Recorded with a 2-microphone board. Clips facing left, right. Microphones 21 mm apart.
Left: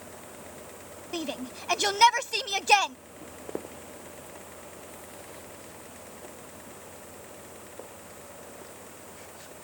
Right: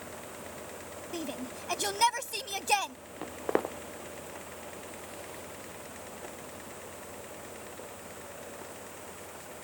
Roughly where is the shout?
Left.